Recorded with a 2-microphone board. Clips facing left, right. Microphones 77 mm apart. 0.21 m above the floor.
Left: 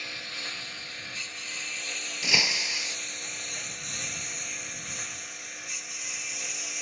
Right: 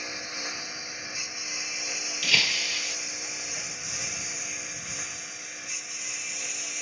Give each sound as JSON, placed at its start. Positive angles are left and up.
{"t": 0.0, "sound": "a lawn mower", "side_deg": -20}
{"t": 2.2, "sound": "breaking glass", "side_deg": 20}